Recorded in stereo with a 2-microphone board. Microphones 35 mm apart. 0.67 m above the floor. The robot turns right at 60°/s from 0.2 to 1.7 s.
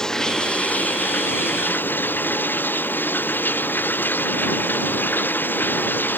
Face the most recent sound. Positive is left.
turn(degrees=110)